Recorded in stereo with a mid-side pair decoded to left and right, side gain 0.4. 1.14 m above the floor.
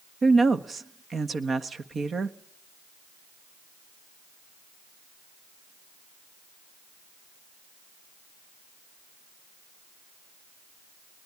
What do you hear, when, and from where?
0.2 s a woman speaking: 45° right, 1.5 m